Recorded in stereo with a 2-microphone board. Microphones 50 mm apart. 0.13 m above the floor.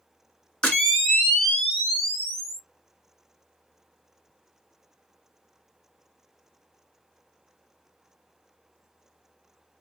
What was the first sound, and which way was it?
A camera shutter, 15° left (ahead or behind).